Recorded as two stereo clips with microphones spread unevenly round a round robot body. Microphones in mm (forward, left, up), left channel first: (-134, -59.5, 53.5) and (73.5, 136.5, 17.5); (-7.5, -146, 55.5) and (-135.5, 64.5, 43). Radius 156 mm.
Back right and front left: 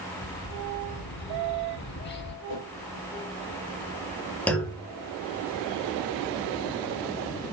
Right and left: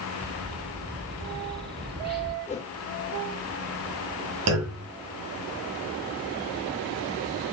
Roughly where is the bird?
Behind.